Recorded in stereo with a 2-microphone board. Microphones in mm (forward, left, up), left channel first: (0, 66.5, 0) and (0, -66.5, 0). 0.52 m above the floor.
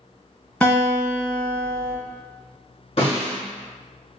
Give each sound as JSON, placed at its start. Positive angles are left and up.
{"t": 0.6, "sound": "a guitar", "side_deg": 10, "distance_m": 0.8}
{"t": 3.0, "sound": "a snare drum", "side_deg": 50, "distance_m": 1.9}